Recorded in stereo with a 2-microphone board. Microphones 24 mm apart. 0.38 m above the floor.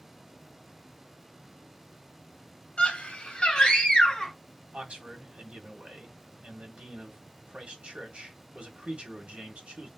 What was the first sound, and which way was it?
A scream, 55° left (ahead or behind).